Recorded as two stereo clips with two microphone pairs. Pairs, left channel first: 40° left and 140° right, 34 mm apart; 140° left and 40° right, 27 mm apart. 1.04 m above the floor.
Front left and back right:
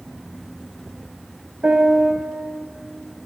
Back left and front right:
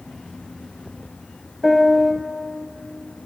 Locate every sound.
1.6 s a piano: 135° right, 1.0 m